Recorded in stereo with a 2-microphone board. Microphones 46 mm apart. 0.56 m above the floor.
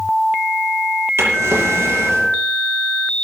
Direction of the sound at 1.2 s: 85° right.